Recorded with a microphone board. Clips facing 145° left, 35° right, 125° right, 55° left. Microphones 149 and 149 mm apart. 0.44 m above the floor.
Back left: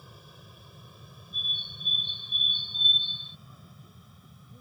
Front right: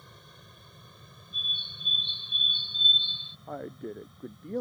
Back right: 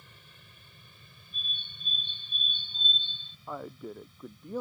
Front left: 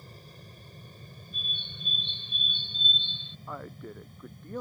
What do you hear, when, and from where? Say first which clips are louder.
0.0 s an aircraft: back left 2 dB, front left 9 dB; 65° left; by 4.6 s 60° left
1.3 s a bird: even, front left 1 dB; 170° right
3.5 s a man speaking: front right 17 dB, back right 2 dB; 45° right